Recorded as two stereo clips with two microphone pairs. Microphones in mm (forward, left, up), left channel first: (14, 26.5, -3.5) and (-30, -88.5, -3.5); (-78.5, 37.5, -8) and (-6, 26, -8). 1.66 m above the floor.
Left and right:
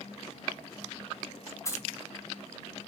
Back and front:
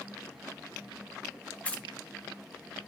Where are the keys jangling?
120° left, 0.9 m.